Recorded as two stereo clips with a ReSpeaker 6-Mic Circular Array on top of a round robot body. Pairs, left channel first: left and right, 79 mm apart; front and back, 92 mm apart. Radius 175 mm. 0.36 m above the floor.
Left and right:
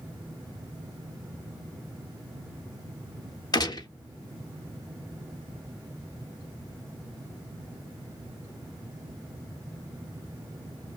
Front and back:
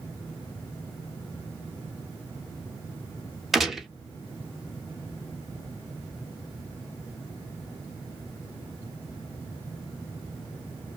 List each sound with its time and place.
3.5 s a gunshot: 90° left, 0.9 m